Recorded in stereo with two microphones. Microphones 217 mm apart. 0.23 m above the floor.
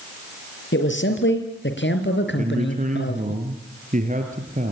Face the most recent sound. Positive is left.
turn(degrees=-35)  # may be behind; listen again after turning